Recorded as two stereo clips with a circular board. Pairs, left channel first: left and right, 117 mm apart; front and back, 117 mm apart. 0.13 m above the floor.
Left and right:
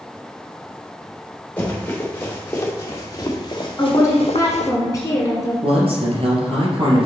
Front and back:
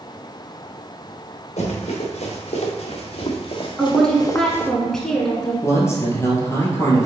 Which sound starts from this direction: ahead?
Running footsteps, at 1.6 s.